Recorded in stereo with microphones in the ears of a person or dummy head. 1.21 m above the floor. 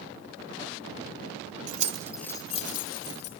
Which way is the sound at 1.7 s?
45° right (ahead or behind).